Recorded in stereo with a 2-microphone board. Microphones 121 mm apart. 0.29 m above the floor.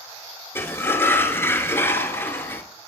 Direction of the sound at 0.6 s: 20° left (ahead or behind).